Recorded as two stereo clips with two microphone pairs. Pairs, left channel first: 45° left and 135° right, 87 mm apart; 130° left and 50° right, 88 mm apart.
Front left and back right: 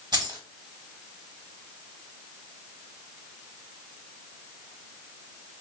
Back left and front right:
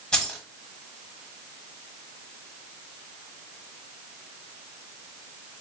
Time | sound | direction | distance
0.1 | keys jangling | 150° right | 1.0 m